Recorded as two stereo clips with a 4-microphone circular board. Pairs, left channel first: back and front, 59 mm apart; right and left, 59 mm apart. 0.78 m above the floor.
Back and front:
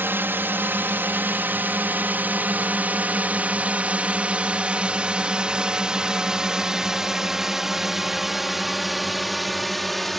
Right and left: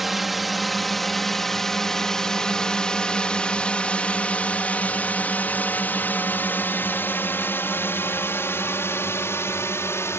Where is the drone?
5° left; by 10.2 s 95° right.